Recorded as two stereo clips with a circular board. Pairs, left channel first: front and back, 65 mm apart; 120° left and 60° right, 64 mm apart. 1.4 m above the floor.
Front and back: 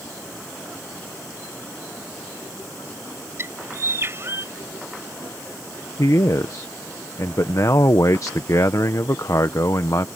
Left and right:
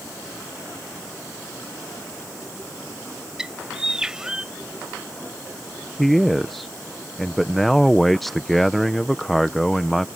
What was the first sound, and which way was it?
A bird, 140° right.